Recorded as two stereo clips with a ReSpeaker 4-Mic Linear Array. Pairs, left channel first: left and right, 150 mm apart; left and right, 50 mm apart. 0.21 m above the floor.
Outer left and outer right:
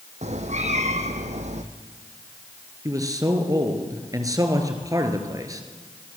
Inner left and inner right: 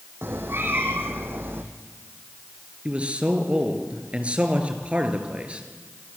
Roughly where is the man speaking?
Right.